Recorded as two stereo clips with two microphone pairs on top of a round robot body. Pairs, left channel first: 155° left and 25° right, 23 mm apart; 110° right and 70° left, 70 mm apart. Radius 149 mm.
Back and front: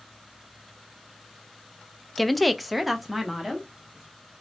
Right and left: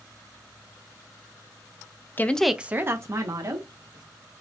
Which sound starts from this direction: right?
A woman speaking, at 2.2 s.